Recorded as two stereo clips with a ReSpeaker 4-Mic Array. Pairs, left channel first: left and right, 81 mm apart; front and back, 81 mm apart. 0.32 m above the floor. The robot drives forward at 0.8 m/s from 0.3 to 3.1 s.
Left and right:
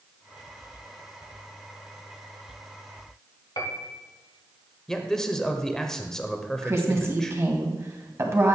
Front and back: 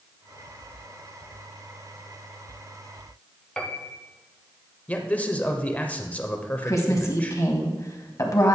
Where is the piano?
75° left, 0.9 m.